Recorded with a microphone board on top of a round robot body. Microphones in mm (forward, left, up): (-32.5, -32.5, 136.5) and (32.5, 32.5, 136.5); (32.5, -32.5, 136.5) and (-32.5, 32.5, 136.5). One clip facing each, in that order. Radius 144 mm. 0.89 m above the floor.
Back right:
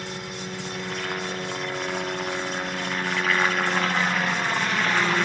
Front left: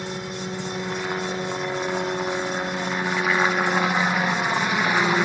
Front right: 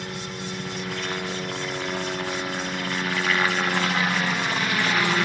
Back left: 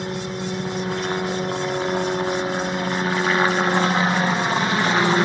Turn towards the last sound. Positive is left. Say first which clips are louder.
# front left 4 dB, back left 6 dB
turn(degrees=110)